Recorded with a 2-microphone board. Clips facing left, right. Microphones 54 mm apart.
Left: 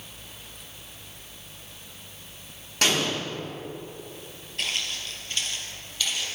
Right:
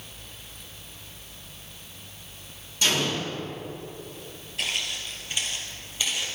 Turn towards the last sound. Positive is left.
turn(degrees=-25)  # may be behind; listen again after turning